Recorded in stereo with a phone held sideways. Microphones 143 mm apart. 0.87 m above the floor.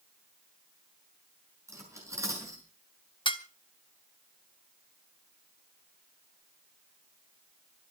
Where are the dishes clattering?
35° left (ahead or behind), 1.3 m.